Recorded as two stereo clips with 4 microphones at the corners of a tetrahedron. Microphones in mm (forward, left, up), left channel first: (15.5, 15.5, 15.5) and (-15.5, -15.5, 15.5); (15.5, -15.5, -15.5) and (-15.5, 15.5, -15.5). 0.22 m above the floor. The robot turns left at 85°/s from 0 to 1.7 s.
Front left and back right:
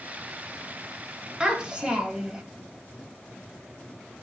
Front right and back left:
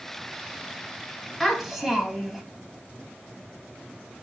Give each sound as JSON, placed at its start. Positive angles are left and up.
{"t": 1.4, "sound": "a child speaking", "azimuth_deg": -125, "distance_m": 0.8}